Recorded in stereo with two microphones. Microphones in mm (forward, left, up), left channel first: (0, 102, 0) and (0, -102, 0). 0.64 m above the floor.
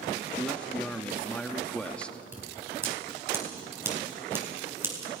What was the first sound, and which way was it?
A man speaking, 5° left (ahead or behind).